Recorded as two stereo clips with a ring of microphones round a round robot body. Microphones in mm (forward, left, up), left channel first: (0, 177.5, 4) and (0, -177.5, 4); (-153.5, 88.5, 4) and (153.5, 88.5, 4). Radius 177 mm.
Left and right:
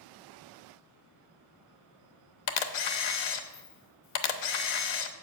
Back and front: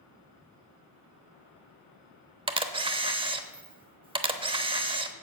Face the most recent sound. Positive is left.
turn(degrees=75)